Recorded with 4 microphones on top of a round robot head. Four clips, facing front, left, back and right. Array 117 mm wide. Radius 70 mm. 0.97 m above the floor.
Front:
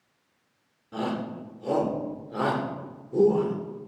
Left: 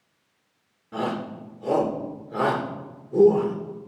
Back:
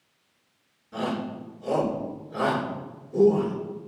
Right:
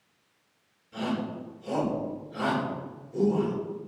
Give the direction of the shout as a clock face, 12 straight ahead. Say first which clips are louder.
Left 3 dB, back 1 dB; 10 o'clock.